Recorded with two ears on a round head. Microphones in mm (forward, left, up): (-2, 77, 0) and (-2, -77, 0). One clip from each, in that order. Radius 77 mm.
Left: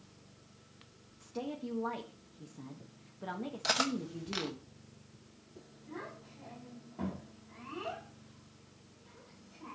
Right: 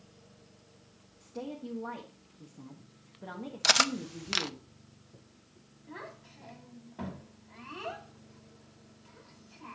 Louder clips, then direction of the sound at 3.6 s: Right 7 dB; 55° right (ahead or behind).